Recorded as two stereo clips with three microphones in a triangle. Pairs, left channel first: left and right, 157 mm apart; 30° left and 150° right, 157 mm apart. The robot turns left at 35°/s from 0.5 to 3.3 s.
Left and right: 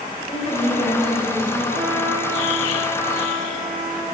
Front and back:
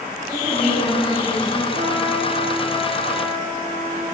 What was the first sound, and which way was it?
A woman speaking, 135° left.